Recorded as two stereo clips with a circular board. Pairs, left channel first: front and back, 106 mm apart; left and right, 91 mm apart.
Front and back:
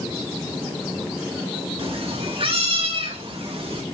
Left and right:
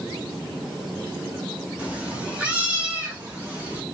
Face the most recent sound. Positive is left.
turn(degrees=-160)